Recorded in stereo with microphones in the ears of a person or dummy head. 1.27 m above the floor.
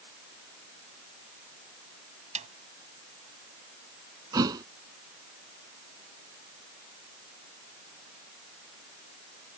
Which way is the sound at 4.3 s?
20° right (ahead or behind).